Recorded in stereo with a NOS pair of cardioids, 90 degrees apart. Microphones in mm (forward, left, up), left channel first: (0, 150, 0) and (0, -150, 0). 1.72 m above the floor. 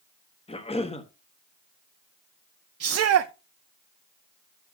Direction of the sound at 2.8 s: 50° right.